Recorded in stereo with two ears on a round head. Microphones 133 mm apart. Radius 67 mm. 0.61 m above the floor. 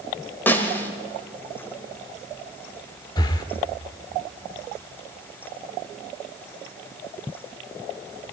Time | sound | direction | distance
0.5 | a snare drum | 15° left (ahead or behind) | 1.6 m
3.2 | breathing | 25° left (ahead or behind) | 1.1 m